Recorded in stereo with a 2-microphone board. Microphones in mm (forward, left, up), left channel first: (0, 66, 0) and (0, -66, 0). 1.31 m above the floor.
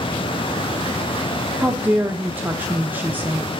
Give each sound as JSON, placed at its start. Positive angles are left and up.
{"t": 1.6, "sound": "a woman speaking", "side_deg": -15, "distance_m": 0.6}